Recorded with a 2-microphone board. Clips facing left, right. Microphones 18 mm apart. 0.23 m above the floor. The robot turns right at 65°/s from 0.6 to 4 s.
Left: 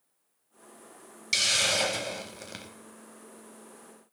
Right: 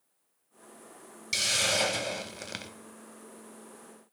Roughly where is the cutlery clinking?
No cutlery clinking in this recording.